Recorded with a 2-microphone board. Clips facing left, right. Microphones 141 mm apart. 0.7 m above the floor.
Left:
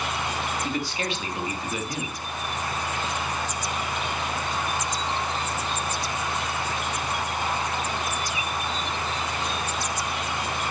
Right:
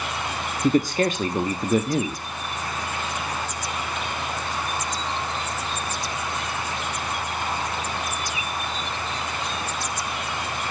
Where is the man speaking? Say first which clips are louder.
Right 9 dB; 45° right (ahead or behind), 1.3 m.